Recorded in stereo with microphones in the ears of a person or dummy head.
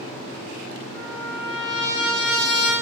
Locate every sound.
0.9 s a trumpet: 15° left (ahead or behind), 2 m